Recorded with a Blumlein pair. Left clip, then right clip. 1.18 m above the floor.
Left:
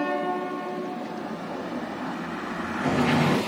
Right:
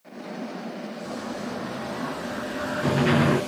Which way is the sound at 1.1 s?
35° right.